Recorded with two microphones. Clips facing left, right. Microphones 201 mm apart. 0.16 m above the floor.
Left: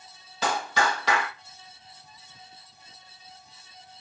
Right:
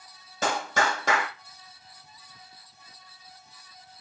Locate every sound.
0.4 s a clap: 45° right (ahead or behind), 6 m